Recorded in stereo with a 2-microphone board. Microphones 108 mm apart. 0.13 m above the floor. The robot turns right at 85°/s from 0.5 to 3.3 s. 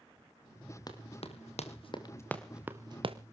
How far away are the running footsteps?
About 3.5 m.